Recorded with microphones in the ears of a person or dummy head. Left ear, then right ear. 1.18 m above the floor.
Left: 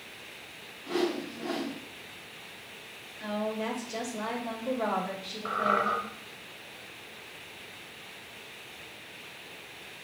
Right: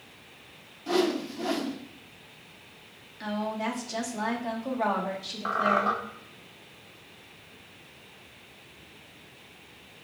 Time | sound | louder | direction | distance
0.9 | a whoosh | right 4 dB | 75° right (ahead or behind) | 1.1 m
3.2 | a woman speaking | right 1 dB | 70° right (ahead or behind) | 1.5 m
5.5 | a squeak | right 2 dB | 55° right (ahead or behind) | 1.5 m